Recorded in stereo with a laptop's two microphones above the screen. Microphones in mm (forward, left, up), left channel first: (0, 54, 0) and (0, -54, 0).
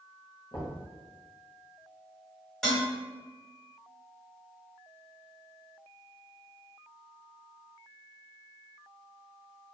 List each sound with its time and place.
0.5 s knocking: 50° left (ahead or behind), 0.8 m
2.6 s dishes clattering: 5° left (ahead or behind), 1.5 m